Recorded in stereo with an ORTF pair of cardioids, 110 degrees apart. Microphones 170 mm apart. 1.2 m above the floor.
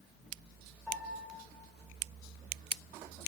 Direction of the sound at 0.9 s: 10° left.